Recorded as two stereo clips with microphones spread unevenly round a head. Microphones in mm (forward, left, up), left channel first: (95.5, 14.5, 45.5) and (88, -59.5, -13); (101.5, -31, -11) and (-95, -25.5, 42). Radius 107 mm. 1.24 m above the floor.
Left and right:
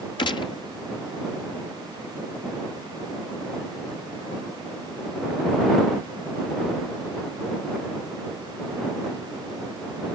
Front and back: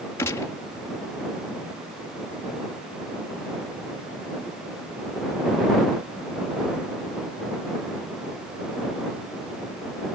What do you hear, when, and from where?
0.2 s a gunshot: 75° left